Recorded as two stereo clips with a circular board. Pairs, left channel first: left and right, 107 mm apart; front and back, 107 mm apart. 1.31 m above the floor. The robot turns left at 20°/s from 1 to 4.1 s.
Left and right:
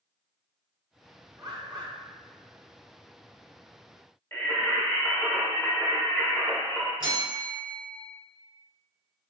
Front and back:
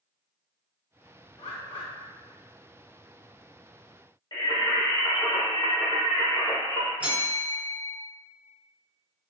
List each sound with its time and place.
1.4 s a bird: 35° right, 1.4 m; by 1.9 s 45° right, 1.4 m
4.3 s singing: 35° left, 1.4 m
7.0 s a bell: 110° right, 1.2 m